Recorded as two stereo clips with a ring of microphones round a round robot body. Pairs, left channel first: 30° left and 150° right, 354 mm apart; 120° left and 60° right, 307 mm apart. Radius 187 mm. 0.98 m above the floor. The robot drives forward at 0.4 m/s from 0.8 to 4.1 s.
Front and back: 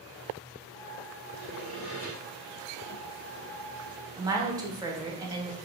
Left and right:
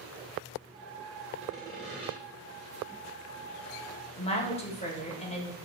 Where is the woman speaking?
145° left, 0.7 m.